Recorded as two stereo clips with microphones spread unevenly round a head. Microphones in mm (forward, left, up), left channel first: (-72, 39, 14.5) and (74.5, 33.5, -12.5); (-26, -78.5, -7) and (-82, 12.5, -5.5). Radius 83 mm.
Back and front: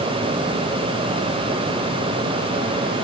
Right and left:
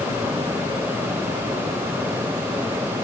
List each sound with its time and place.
Only background noise.